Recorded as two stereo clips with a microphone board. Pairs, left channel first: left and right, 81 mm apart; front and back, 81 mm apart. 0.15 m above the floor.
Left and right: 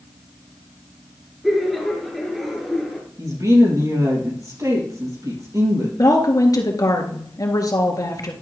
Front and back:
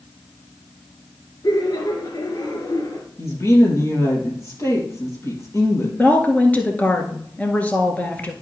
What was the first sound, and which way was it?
Laughter, straight ahead.